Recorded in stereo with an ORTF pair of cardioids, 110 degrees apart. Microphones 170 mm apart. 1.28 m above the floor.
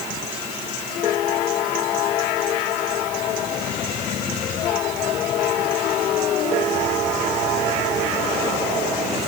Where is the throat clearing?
I don't hear throat clearing.